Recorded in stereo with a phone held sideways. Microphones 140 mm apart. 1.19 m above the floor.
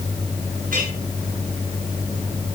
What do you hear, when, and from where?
0.7 s a clink: 80° right, 7.5 m